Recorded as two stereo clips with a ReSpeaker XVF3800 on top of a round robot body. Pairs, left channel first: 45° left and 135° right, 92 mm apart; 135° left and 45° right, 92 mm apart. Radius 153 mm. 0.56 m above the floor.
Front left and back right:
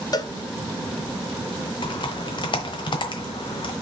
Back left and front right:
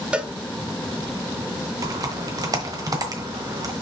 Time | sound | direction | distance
0.1 | a cowbell | 30° left | 1.0 m
1.8 | typing on a keyboard | 5° left | 1.0 m